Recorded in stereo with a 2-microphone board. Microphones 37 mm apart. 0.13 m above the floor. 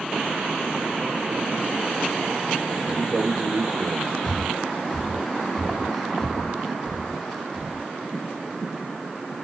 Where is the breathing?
5° left (ahead or behind), 1.1 m.